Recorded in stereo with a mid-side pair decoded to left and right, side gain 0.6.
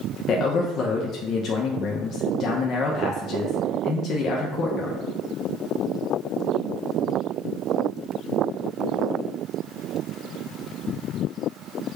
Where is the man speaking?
50° left, 0.5 m.